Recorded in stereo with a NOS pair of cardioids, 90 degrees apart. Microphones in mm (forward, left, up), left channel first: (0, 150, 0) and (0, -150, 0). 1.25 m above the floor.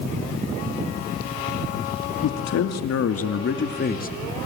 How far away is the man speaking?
About 2.5 m.